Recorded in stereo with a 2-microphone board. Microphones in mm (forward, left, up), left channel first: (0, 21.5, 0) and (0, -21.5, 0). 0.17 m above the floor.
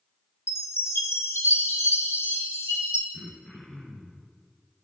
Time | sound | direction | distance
0.5 | a chime | 75° left (ahead or behind) | 2 m
3.1 | throat clearing | 5° right (ahead or behind) | 2 m